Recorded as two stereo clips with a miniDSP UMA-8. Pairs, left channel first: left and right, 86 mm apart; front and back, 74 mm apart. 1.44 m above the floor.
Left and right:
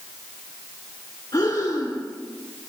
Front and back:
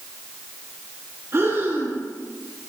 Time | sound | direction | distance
1.3 | breathing | 130° left | 2.5 m